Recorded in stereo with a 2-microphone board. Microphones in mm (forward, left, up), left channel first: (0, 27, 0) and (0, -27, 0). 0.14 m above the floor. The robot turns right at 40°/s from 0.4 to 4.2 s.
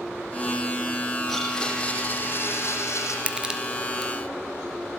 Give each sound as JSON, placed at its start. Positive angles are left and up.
{"t": 1.3, "sound": "a blender", "azimuth_deg": 5, "distance_m": 7.0}
{"t": 3.3, "sound": "crushing", "side_deg": -20, "distance_m": 2.5}